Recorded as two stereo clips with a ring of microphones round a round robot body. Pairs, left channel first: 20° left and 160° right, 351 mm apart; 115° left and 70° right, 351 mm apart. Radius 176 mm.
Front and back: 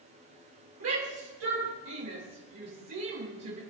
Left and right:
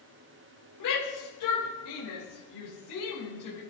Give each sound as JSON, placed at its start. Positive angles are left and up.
{"t": 0.8, "sound": "a shout", "azimuth_deg": 150, "distance_m": 4.0}